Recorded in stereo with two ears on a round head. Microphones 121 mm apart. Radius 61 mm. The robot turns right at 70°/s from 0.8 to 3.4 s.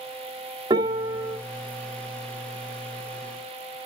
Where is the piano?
35° right, 1.6 m; by 1.4 s 5° left, 1.6 m.